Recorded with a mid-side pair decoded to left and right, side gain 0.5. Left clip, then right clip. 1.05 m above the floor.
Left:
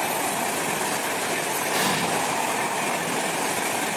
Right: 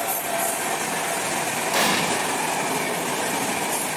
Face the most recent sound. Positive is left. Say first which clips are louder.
# right 3 dB
turn(degrees=-35)